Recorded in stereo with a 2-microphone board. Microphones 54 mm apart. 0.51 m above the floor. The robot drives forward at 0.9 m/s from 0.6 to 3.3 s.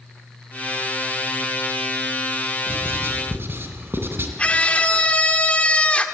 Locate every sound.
2.7 s writing: 40° right (ahead or behind), 3.5 m; by 4.3 s 50° right (ahead or behind), 3.5 m
4.4 s a scream: 25° left (ahead or behind), 1.6 m